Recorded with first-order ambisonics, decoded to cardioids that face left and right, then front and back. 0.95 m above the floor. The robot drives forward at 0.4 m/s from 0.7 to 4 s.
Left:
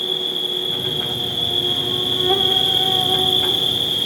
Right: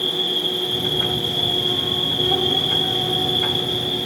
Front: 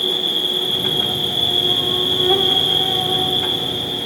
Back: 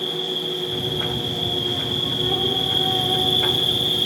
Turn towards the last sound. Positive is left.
turn(degrees=115)